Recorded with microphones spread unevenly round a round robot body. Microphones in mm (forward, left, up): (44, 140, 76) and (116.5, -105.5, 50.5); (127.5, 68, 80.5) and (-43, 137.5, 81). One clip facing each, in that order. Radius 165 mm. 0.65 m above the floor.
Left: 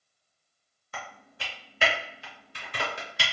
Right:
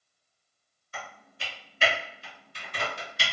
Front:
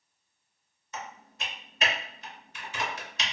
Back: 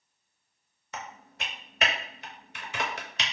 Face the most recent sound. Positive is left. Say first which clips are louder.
# left 1 dB, even
turn(degrees=145)